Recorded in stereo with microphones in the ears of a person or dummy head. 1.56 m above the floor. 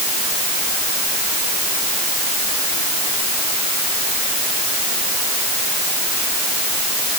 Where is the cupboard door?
No cupboard door in this recording.